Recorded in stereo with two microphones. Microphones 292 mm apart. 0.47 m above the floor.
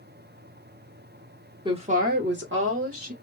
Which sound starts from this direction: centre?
A woman speaking, at 1.6 s.